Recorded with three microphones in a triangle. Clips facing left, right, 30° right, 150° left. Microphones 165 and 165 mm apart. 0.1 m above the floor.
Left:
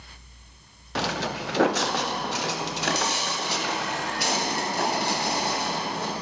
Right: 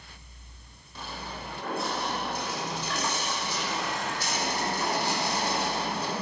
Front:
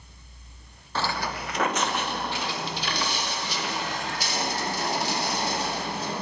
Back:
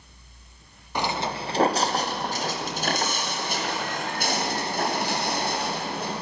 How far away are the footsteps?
About 1.5 m.